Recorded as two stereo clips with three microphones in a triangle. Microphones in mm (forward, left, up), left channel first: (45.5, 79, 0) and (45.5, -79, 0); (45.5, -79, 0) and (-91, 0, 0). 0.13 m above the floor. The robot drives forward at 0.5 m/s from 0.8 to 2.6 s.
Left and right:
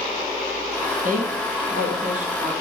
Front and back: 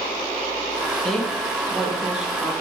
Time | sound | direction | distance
1.0 | a woman speaking | 115° right | 3.5 m